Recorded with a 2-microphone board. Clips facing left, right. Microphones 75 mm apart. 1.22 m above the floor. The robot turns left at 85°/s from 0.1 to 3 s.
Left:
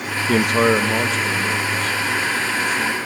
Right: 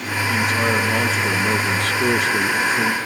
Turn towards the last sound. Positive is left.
turn(degrees=-165)